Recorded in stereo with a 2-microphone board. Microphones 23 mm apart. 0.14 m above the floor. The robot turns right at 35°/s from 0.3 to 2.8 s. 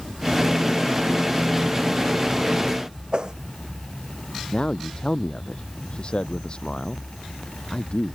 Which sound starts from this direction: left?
A man speaking, at 4.5 s.